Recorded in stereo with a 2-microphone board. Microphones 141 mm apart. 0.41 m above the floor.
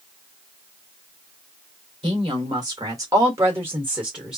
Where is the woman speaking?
35° right (ahead or behind), 1.5 m; by 4.4 s 5° right (ahead or behind), 1.4 m.